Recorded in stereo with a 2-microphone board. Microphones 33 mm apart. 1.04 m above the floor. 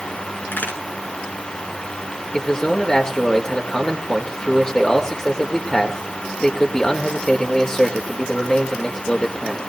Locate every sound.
0.5 s a crack: 80° left, 7.5 m
2.3 s a man speaking: 25° left (ahead or behind), 2 m